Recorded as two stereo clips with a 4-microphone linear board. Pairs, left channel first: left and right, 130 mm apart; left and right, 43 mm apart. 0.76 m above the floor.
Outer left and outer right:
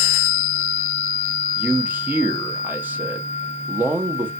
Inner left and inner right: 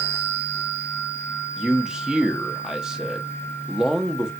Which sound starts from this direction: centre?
A man speaking, at 1.6 s.